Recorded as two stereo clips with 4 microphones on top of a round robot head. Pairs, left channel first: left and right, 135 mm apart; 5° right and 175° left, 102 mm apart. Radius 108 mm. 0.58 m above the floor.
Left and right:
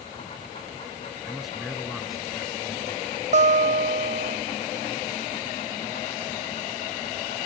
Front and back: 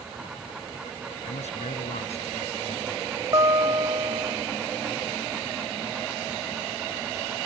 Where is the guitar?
120° right.